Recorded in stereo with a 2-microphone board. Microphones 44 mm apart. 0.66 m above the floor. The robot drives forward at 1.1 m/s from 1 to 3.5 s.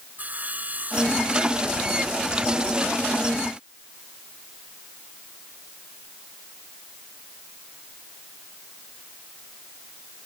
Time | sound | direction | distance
0.2 | sawing | 40° right (ahead or behind) | ?